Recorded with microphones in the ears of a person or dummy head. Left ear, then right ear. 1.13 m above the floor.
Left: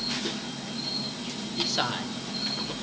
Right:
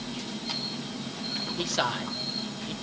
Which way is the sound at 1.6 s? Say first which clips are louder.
Left 2 dB; 5° right (ahead or behind).